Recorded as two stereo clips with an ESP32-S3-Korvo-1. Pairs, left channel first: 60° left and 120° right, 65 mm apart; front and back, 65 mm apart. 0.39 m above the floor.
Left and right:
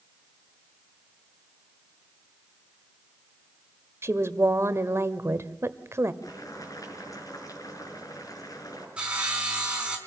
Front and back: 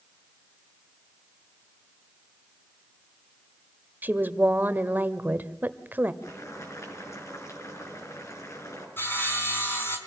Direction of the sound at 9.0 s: 50° right.